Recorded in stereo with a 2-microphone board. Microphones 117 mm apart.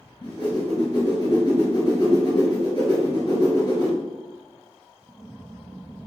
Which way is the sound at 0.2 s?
35° left (ahead or behind).